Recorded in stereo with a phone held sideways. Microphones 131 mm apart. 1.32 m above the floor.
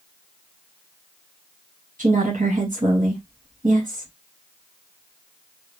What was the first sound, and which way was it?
A woman speaking, 85° right.